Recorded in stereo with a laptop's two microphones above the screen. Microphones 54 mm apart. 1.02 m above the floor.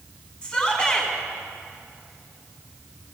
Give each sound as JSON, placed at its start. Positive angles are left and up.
{"t": 0.4, "sound": "a shout", "side_deg": 15, "distance_m": 9.0}